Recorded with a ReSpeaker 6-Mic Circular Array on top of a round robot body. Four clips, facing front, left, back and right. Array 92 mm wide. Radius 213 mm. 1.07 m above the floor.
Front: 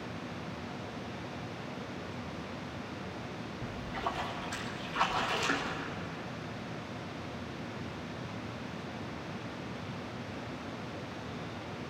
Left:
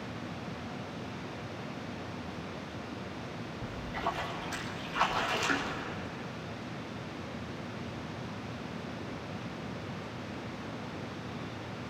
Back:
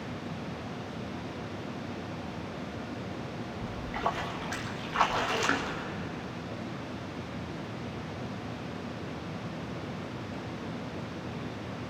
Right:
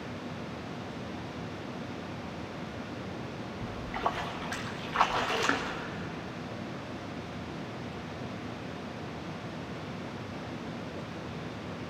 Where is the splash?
125° right, 1.8 m.